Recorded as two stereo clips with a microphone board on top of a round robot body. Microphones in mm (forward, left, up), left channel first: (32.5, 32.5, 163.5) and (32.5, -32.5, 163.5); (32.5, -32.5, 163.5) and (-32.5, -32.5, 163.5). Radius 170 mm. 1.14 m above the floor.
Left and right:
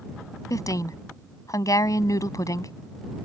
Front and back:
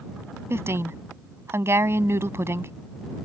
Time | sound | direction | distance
0.5 | a woman speaking | 125° left | ?